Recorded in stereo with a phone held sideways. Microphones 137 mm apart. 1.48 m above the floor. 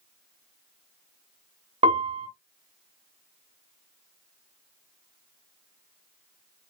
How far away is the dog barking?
I don't hear a dog barking.